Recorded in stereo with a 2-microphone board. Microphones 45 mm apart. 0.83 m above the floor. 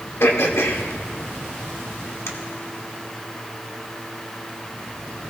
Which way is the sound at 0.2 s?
75° left (ahead or behind).